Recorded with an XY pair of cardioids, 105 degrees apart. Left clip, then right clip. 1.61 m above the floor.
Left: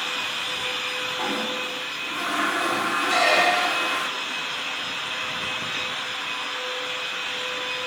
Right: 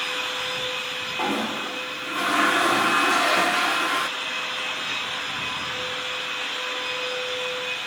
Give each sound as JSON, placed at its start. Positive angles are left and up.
{"t": 1.2, "sound": "a toilet flushing", "azimuth_deg": -25}
{"t": 3.1, "sound": "a squeak", "azimuth_deg": 40}